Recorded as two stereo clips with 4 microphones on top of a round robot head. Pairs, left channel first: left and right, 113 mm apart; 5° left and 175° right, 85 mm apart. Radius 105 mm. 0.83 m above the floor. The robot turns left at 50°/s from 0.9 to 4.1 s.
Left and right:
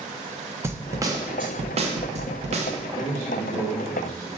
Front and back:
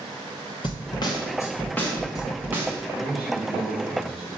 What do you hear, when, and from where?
0.6 s a snare drum: 25° right, 1.2 m; by 2.8 s 115° right, 1.2 m
2.9 s a man speaking: 110° right, 3 m; by 4.3 s 165° right, 3 m